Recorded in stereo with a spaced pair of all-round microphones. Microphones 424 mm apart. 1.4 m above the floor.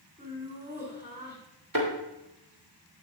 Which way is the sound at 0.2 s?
25° right (ahead or behind).